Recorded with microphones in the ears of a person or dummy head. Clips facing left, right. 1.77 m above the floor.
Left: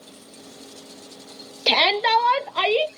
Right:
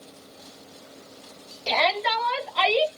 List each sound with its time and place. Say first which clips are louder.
1.7 s a shout: left 3 dB; 75° left (ahead or behind), 0.6 m; by 2.9 s 35° left (ahead or behind), 0.7 m